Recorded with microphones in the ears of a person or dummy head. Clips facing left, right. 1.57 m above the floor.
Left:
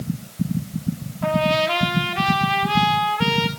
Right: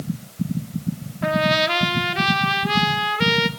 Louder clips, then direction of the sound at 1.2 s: Left 1 dB; 25° right (ahead or behind).